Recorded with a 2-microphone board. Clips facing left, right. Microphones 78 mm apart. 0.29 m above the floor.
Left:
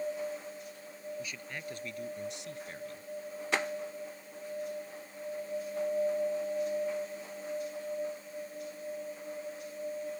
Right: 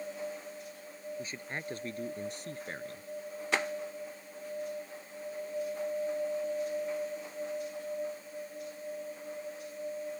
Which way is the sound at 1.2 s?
35° right (ahead or behind).